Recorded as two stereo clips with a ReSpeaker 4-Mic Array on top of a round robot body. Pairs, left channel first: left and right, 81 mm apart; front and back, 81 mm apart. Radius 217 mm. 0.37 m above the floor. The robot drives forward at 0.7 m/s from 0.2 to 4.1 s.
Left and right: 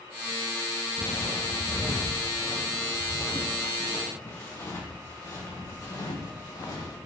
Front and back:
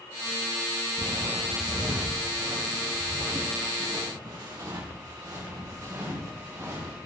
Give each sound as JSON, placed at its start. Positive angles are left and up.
{"t": 1.0, "sound": "footsteps", "azimuth_deg": 135, "distance_m": 0.5}